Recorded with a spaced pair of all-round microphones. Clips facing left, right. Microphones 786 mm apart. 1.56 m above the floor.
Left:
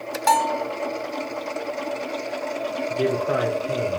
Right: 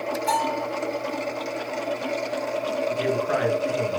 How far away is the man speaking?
About 1.9 m.